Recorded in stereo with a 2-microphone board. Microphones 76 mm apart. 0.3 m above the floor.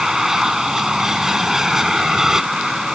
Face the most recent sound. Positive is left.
turn(degrees=-5)  # may be behind; listen again after turning